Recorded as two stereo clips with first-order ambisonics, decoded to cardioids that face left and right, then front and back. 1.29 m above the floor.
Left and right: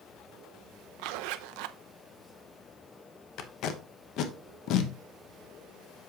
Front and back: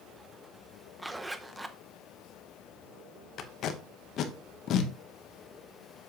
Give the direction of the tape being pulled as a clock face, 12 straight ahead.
10 o'clock.